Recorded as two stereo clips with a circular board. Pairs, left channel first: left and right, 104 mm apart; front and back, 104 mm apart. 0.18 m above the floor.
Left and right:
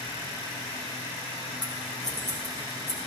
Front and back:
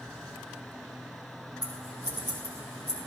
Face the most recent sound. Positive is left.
turn(degrees=175)